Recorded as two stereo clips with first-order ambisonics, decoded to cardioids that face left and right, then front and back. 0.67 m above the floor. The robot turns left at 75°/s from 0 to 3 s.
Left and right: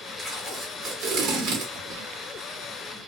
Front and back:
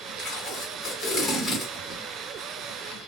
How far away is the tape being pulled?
About 1.2 m.